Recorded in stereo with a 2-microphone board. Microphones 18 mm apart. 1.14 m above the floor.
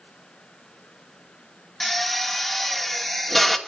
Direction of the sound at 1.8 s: 20° left (ahead or behind).